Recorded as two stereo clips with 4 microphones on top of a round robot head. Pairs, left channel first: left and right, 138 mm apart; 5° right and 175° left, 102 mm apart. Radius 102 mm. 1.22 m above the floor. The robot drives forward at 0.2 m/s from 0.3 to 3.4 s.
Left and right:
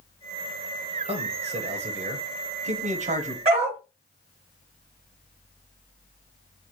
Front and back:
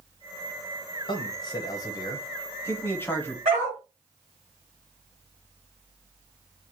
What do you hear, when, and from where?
1.1 s a man speaking: 50° right, 1.0 m; by 3.4 s 80° right, 0.8 m
3.5 s a dog barking: 130° right, 2.5 m